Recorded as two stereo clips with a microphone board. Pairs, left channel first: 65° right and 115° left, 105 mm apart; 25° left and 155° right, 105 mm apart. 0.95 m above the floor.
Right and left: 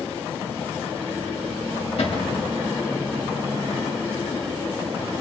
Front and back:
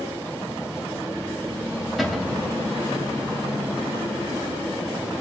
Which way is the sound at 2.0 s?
65° right.